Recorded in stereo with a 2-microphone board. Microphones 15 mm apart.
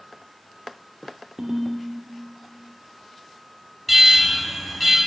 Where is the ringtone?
65° right (ahead or behind), 1.5 m.